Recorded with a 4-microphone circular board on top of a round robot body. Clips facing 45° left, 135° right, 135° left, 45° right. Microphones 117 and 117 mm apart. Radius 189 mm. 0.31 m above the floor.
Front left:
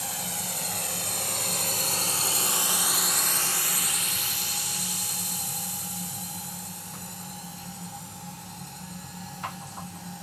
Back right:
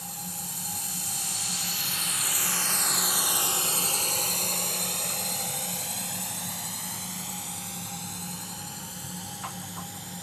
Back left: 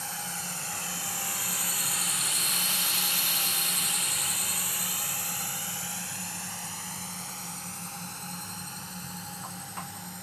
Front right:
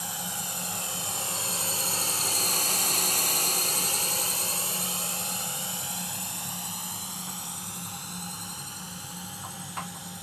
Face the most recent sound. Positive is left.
turn(degrees=-125)